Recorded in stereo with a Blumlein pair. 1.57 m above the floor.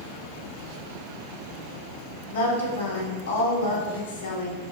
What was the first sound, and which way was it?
A woman speaking, 60° left.